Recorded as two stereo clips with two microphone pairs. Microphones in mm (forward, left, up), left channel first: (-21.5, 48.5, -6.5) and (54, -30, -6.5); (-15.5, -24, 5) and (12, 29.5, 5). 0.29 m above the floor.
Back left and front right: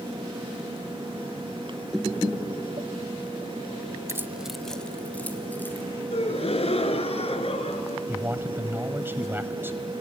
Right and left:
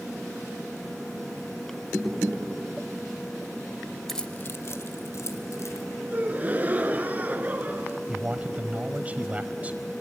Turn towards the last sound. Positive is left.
turn(degrees=10)